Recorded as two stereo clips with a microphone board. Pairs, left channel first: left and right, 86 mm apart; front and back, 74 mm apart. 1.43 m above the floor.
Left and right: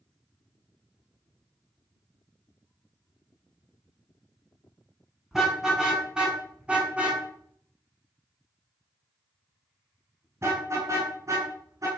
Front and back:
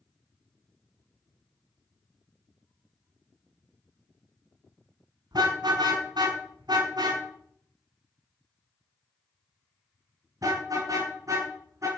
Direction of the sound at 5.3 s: 175° right.